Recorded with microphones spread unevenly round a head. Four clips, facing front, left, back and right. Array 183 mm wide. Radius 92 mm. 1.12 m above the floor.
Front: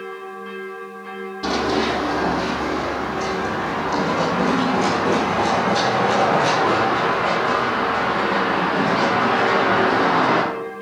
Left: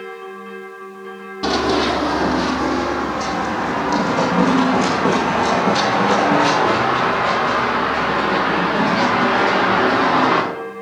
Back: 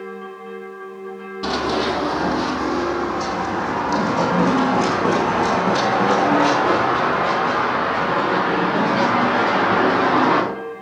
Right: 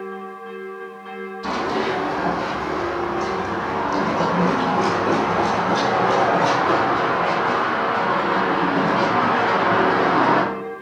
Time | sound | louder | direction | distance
1.4 | running footsteps | left 5 dB, even | 85° left | 2.5 m